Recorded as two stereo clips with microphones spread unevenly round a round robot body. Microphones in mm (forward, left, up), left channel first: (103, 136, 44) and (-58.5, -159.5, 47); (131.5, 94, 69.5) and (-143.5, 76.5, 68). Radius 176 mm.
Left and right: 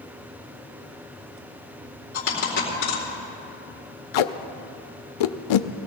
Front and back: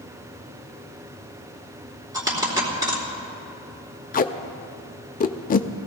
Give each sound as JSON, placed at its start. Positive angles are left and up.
{"t": 2.1, "sound": "a dropped coin", "azimuth_deg": 110, "distance_m": 4.0}
{"t": 4.1, "sound": "tape being pulled", "azimuth_deg": 65, "distance_m": 0.6}